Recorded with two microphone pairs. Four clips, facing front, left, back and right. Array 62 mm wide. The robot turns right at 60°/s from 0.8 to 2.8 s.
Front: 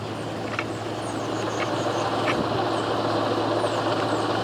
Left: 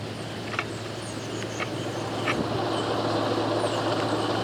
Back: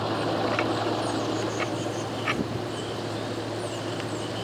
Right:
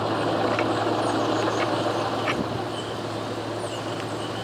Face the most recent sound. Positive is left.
turn(degrees=10)